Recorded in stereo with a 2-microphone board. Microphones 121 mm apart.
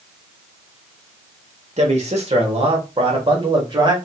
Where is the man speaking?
65° right (ahead or behind), 1.6 m; by 4.0 s 40° right (ahead or behind), 2 m.